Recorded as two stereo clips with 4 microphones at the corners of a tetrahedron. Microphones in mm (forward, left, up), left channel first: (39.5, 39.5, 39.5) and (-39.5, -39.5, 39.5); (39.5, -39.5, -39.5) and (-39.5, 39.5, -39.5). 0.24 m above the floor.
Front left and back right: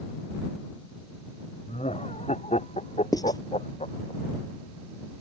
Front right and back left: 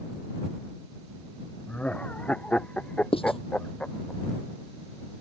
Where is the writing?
10° right.